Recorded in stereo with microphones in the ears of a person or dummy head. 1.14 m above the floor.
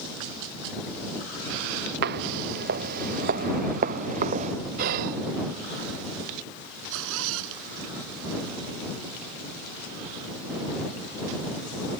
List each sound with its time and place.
2.0 s footsteps: 60° right (ahead or behind); by 4.5 s 40° right (ahead or behind)
4.8 s whispering: 50° right (ahead or behind)
6.9 s a zipper: 80° right